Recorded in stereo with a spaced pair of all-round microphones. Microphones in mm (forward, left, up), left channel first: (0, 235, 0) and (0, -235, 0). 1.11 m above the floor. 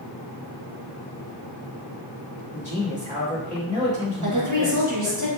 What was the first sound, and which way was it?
A man speaking, 15° right (ahead or behind).